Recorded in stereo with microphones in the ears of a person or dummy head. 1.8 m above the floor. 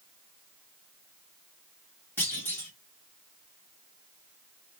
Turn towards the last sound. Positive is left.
turn(degrees=15)  # may be behind; listen again after turning